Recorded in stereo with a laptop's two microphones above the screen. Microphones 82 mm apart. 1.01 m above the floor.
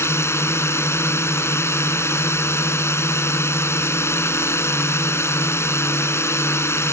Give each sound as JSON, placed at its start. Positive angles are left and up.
{"t": 0.0, "sound": "a drone", "side_deg": 35}